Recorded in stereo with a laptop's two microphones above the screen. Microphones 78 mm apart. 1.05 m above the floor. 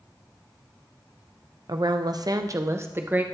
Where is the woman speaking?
55° right (ahead or behind), 0.6 m; by 3.2 s 25° right (ahead or behind), 0.8 m.